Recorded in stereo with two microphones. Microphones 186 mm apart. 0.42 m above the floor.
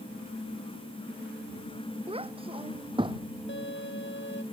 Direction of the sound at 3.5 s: 85° left.